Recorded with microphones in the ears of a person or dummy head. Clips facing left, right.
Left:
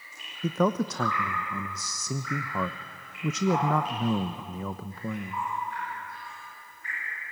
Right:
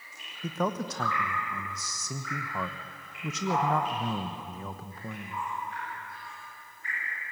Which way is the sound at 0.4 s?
70° left (ahead or behind).